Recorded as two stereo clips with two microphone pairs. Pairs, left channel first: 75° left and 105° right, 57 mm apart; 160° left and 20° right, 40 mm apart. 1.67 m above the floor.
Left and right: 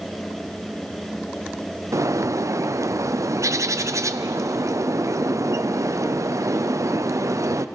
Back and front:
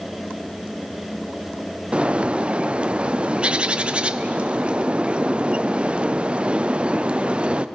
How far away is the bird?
About 0.5 m.